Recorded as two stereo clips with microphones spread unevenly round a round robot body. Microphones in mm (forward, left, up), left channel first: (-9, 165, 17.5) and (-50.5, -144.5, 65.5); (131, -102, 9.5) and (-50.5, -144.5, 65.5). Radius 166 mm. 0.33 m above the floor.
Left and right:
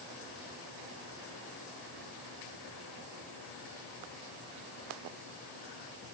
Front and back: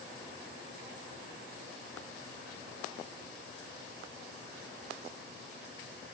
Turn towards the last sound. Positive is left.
No sound to turn to.